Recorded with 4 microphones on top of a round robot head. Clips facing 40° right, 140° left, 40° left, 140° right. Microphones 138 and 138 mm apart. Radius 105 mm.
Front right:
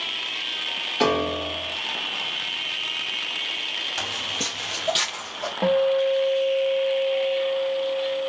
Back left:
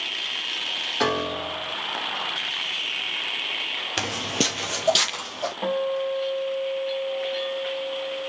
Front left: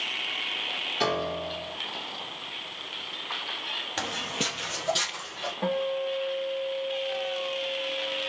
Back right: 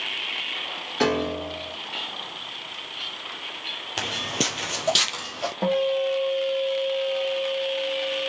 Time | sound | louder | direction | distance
1.0 | a piano | front right 3 dB, back right 5 dB | 115° right | 1.6 m
4.0 | footsteps | back left 7 dB, back right 4 dB | 140° left | 0.8 m
5.6 | a guitar | front right 6 dB, back right 6 dB | 90° right | 1.4 m